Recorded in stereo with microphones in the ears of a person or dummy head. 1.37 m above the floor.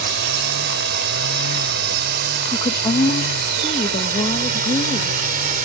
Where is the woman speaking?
20° left (ahead or behind).